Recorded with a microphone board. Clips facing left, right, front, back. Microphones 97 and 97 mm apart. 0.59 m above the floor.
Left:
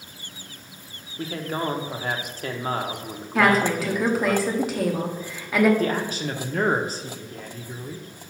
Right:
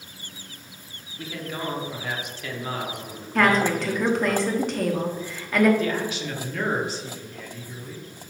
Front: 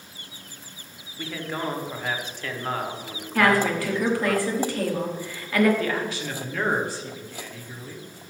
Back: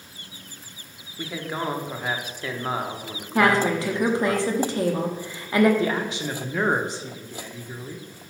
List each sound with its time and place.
1.2 s a man speaking: 105° left, 0.9 m
3.4 s a woman speaking: 170° left, 0.9 m
5.8 s a man speaking: 115° left, 0.9 m